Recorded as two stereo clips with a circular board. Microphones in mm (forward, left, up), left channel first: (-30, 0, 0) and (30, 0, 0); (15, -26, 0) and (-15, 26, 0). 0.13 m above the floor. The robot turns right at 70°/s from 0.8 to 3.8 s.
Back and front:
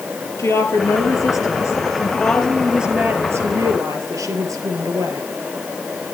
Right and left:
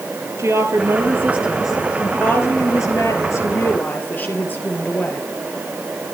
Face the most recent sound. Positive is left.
turn(degrees=-5)